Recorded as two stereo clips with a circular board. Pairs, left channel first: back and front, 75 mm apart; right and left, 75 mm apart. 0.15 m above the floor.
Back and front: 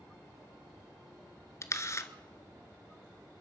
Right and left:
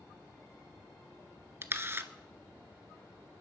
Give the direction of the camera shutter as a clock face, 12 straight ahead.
7 o'clock.